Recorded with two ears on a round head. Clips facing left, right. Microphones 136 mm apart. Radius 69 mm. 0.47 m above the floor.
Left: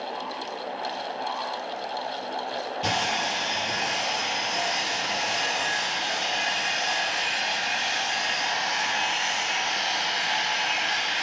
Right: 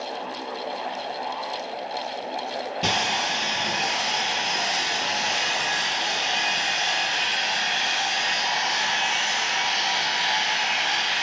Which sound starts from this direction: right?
Sawing, at 2.8 s.